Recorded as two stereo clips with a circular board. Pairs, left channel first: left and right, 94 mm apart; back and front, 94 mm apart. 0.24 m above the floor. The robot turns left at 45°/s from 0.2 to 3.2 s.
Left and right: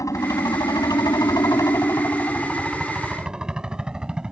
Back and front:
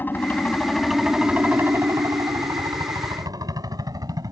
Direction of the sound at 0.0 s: 120° left.